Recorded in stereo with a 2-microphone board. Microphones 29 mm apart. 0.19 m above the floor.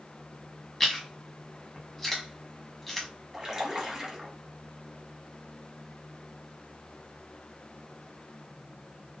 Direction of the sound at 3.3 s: 20° right (ahead or behind).